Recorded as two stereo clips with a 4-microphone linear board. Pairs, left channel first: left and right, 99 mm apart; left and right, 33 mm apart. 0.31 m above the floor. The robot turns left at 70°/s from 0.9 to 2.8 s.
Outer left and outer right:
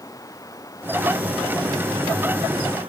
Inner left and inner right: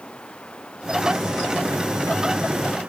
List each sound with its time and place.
0.0 s running water: 35° left; by 2.9 s 100° right